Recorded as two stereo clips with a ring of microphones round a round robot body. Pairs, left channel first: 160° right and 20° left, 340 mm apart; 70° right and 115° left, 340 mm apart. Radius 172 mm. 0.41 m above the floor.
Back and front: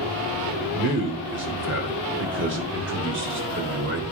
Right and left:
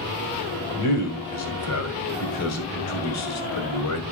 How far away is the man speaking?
About 2 m.